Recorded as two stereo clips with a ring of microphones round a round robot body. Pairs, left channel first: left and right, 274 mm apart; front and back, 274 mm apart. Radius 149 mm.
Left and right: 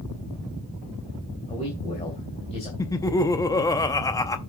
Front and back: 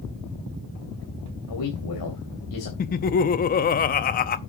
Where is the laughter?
20° left, 0.6 m.